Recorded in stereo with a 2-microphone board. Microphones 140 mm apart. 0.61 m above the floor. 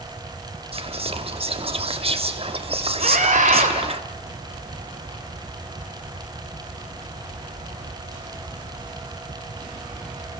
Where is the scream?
65° right (ahead or behind), 2 m.